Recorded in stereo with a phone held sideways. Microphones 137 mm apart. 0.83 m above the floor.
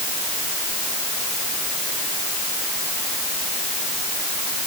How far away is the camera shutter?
I don't hear a camera shutter.